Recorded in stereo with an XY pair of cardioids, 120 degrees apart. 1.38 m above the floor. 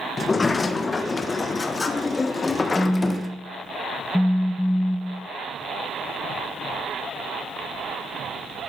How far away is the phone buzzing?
About 0.8 m.